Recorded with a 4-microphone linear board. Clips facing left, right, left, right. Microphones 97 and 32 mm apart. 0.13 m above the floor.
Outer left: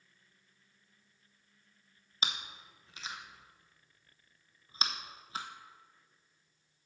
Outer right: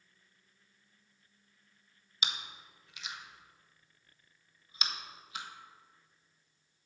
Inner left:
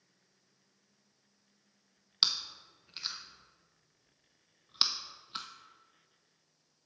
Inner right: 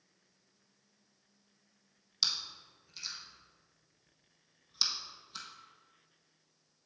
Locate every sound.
2.2 s chewing: 35° left (ahead or behind), 0.9 m